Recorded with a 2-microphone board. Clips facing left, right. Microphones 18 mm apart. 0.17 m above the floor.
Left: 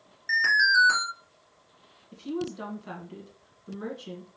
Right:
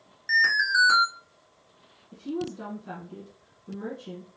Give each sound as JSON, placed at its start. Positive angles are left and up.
{"t": 0.3, "sound": "an alarm", "side_deg": -10, "distance_m": 1.5}
{"t": 2.1, "sound": "a woman speaking", "side_deg": 25, "distance_m": 1.5}